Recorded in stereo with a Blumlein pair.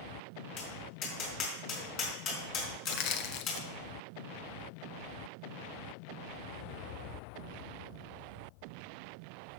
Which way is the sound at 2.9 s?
40° left.